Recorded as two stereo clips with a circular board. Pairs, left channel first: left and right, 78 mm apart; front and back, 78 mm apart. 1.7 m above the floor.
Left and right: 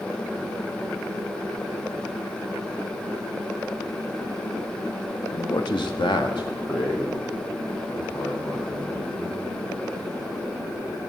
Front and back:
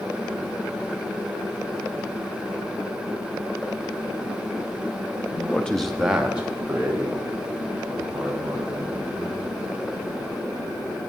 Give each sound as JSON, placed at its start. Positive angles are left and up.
{"t": 5.3, "sound": "a man speaking", "azimuth_deg": 65, "distance_m": 0.6}